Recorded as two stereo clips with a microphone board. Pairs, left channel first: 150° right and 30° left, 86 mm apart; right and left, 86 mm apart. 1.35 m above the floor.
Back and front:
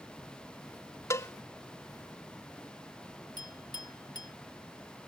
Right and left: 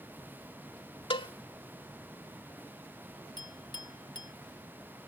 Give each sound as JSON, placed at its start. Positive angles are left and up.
{"t": 1.1, "sound": "a cowbell", "azimuth_deg": -95}
{"t": 3.4, "sound": "a clink", "azimuth_deg": -115}